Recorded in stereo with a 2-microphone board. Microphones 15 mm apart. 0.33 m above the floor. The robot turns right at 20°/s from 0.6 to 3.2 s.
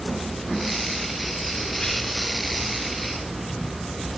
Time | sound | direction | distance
1.8 | whispering | 50° left (ahead or behind) | 4.5 m